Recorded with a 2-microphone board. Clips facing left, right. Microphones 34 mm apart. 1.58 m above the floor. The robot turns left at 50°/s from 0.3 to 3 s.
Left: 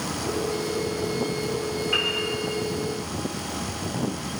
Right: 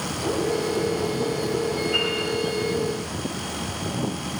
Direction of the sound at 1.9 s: 50° left (ahead or behind).